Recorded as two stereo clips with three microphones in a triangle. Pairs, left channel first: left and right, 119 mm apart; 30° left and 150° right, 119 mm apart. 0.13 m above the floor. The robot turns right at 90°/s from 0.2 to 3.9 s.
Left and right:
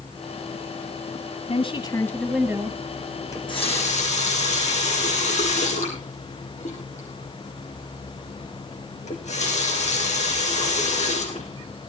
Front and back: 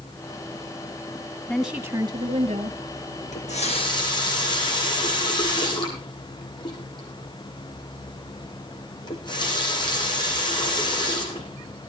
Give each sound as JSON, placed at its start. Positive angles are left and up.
{"t": 1.5, "sound": "a woman speaking", "azimuth_deg": 110, "distance_m": 2.0}
{"t": 3.3, "sound": "a running tap", "azimuth_deg": 25, "distance_m": 4.5}